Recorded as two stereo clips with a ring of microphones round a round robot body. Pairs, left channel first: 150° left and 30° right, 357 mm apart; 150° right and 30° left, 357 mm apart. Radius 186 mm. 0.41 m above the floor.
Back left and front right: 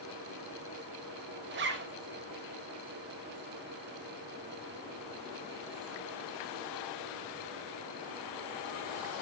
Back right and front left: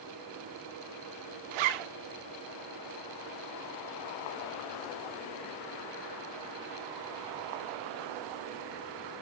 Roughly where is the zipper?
Ahead left.